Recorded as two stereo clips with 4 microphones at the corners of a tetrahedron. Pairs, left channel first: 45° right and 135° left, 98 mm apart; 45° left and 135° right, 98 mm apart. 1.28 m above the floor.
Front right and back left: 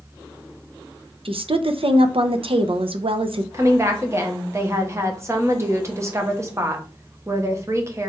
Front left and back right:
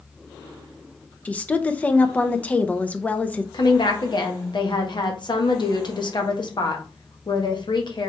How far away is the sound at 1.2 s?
About 0.6 m.